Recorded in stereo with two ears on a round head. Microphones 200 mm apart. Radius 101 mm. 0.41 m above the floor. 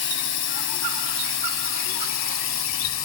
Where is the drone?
60° left (ahead or behind); by 3.0 s 65° left (ahead or behind).